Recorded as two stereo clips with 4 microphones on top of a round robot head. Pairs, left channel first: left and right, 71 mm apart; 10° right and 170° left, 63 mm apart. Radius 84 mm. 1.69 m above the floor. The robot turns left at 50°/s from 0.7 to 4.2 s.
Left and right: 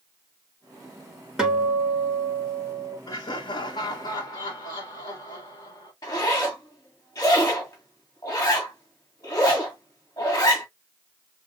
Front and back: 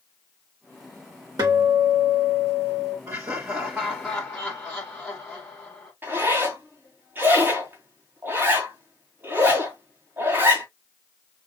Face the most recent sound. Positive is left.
turn(degrees=115)